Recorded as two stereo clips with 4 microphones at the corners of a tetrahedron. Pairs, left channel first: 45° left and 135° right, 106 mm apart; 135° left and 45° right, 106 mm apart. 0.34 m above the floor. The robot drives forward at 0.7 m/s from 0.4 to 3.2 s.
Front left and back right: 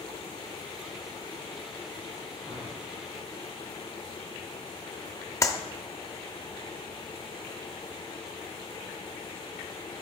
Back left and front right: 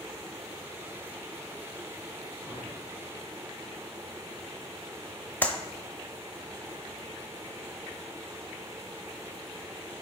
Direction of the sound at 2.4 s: 145° right.